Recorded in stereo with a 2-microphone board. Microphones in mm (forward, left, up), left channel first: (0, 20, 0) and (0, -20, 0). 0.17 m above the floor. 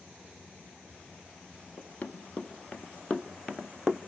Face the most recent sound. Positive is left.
turn(degrees=-10)  # may be behind; listen again after turning